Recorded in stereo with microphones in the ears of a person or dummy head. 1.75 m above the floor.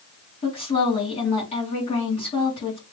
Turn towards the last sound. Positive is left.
turn(degrees=40)  # may be behind; listen again after turning